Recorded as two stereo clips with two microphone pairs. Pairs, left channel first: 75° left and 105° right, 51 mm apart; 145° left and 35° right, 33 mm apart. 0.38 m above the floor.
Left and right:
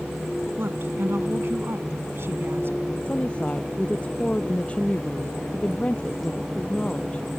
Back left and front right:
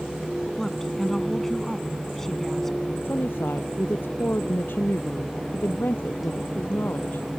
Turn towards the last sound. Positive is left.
turn(degrees=140)